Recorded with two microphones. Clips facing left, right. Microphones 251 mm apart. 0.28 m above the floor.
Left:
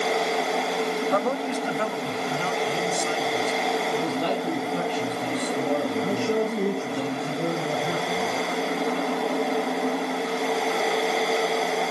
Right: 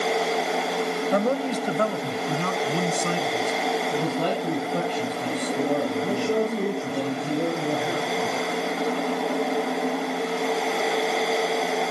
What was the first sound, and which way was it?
A man speaking, 20° right (ahead or behind).